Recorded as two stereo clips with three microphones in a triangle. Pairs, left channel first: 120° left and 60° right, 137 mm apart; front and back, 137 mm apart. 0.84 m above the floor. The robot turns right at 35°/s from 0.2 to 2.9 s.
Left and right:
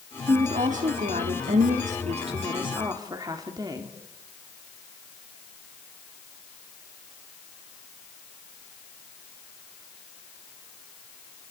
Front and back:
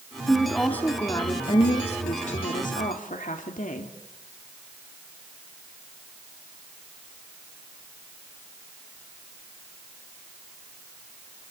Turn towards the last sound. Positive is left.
turn(degrees=0)